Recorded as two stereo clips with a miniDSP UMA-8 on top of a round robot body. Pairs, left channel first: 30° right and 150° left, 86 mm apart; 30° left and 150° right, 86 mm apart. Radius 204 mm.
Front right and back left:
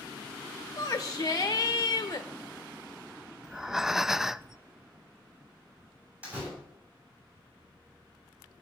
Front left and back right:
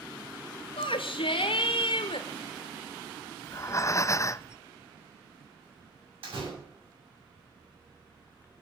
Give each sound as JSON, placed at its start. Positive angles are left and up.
{"t": 0.8, "sound": "a shout", "azimuth_deg": 20, "distance_m": 0.9}
{"t": 3.4, "sound": "breathing", "azimuth_deg": 65, "distance_m": 0.6}
{"t": 6.2, "sound": "a door slam", "azimuth_deg": -140, "distance_m": 7.0}